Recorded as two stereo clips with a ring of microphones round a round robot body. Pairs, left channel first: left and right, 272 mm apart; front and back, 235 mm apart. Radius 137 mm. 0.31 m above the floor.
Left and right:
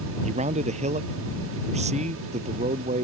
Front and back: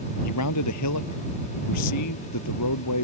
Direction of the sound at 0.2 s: 25° right.